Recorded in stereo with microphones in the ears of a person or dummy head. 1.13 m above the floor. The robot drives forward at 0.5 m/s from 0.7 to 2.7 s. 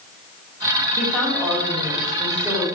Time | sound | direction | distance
1.0 | a woman speaking | centre (ahead or behind) | 1.1 m